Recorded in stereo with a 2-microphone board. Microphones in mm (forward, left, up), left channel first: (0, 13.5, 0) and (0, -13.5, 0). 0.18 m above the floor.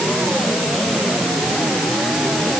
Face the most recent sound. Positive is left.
No sound to turn to.